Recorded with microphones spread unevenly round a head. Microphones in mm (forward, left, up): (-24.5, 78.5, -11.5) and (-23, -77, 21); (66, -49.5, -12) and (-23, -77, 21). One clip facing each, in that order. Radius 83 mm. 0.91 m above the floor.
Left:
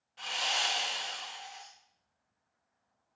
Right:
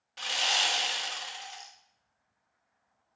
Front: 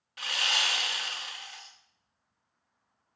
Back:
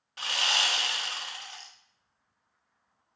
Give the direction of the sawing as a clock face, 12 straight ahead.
3 o'clock.